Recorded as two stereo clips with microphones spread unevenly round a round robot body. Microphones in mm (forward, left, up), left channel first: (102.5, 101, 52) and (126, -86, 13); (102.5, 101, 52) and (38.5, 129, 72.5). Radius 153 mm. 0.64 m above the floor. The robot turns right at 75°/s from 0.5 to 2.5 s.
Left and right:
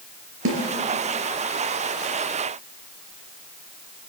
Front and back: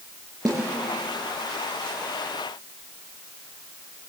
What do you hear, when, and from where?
0.5 s a snare drum: 120° right, 3.5 m; by 0.7 s 110° right, 3.5 m